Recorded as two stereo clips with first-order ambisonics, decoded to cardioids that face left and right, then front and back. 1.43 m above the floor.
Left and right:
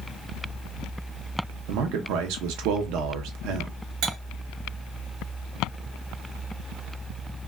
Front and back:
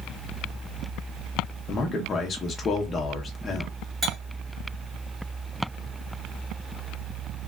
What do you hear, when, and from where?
1.7 s a man speaking: 65° right, 0.7 m
4.0 s cutlery clinking: 115° right, 1.7 m